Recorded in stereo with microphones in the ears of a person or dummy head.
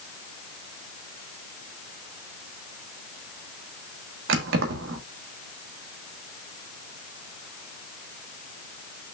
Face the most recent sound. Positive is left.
turn(degrees=-75)  # may be behind; listen again after turning